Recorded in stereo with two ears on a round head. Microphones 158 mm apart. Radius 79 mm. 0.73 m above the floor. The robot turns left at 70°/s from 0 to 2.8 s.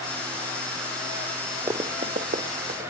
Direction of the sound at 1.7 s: 20° right (ahead or behind).